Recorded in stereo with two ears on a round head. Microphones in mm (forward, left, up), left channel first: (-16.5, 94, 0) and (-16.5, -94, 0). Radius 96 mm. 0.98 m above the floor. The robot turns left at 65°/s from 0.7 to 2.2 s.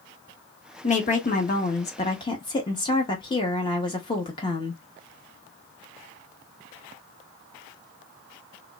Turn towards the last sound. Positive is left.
turn(degrees=35)